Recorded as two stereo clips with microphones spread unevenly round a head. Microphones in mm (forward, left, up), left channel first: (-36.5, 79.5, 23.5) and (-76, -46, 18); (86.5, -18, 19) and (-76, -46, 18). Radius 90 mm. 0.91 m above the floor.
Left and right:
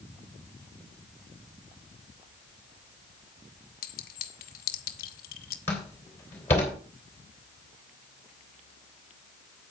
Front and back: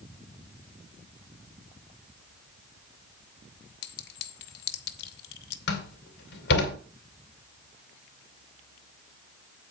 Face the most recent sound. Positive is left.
turn(degrees=-5)